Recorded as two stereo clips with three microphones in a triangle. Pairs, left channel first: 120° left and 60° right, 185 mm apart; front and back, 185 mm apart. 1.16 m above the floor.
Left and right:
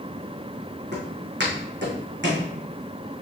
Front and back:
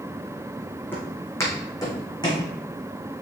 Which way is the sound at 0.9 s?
80° right.